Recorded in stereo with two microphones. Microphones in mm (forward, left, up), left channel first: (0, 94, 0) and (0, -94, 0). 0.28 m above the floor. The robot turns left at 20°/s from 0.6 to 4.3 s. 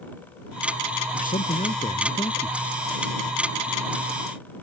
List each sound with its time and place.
1.1 s a man speaking: 50° left (ahead or behind); by 2.6 s 20° left (ahead or behind)